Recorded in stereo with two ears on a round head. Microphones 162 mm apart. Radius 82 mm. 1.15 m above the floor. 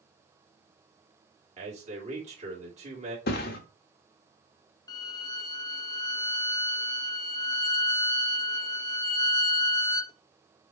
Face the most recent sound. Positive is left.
turn(degrees=20)  # may be behind; listen again after turning